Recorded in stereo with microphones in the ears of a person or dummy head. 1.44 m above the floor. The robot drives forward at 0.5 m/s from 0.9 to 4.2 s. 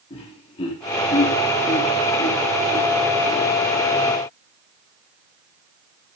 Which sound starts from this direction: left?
Laughter, at 0.1 s.